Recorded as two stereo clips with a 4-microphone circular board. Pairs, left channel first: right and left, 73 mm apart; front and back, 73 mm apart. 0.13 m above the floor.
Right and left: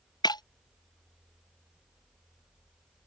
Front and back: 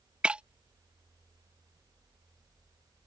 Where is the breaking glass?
105° right.